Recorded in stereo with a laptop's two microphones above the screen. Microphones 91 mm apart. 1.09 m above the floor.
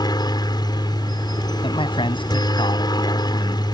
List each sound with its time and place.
0.0 s a helicopter: 55° left (ahead or behind)
1.6 s a man speaking: 85° left